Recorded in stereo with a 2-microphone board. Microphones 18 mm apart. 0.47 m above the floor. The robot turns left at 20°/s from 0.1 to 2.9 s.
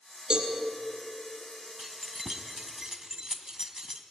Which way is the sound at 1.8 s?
5° right (ahead or behind).